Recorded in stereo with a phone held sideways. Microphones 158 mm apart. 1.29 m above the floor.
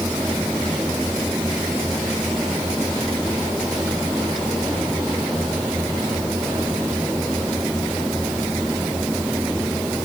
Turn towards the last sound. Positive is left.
turn(degrees=0)  # may be behind; listen again after turning